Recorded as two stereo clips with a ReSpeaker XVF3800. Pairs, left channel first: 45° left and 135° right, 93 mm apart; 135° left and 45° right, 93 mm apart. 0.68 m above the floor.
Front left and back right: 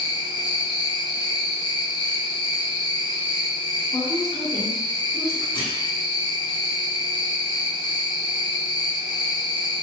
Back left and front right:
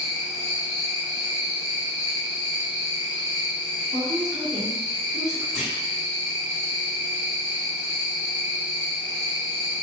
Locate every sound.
0.0 s an insect: 15° left, 0.9 m
3.9 s a woman speaking: 35° left, 1.0 m
5.5 s a clunk: 40° left, 1.5 m